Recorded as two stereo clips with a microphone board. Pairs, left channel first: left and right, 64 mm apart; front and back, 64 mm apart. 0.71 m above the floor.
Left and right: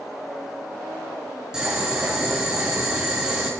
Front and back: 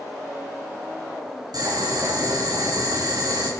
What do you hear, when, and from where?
1.5 s boiling: 170° right, 5 m